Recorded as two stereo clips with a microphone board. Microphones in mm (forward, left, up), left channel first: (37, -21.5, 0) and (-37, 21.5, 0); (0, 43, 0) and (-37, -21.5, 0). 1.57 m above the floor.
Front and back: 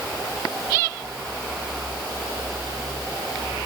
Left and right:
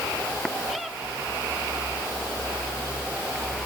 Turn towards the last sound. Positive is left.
No sound to turn to.